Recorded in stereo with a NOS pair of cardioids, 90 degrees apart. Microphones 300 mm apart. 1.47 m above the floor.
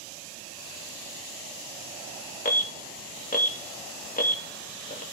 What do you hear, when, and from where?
2.5 s an alarm: 30° left, 1.3 m